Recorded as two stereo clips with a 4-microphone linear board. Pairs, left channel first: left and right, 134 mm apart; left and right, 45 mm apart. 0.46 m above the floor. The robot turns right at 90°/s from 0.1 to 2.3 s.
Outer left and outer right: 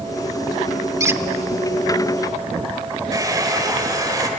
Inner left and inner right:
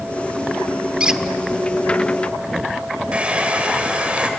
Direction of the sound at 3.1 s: 25° right (ahead or behind).